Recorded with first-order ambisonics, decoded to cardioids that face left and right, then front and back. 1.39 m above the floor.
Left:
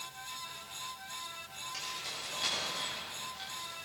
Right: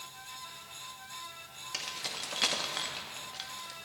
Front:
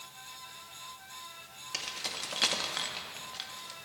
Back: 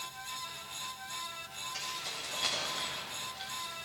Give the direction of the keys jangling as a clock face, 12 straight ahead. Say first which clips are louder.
Right 4 dB, front 4 dB; 1 o'clock.